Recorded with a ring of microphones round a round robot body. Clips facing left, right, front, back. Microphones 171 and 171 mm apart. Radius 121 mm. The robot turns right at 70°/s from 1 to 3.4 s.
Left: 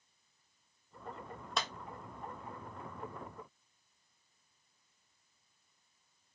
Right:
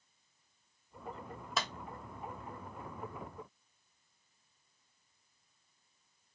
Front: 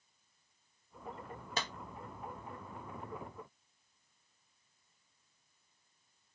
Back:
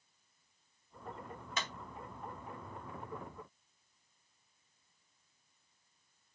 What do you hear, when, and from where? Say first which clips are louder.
1.6 s a clap: even, front 2 dB; 5° right, 0.7 m; by 1.7 s 5° left, 0.7 m